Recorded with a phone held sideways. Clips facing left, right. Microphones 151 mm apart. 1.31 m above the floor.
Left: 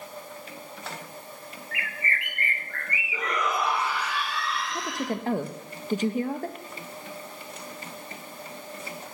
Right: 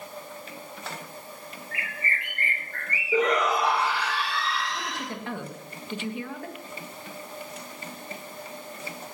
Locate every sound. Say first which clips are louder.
1.7 s a bird: left 1 dB; 35° right (ahead or behind), 4.5 m
3.1 s a shout: right 6 dB; 75° right (ahead or behind), 1.8 m
4.7 s a woman speaking: left 4 dB; 40° left (ahead or behind), 1.4 m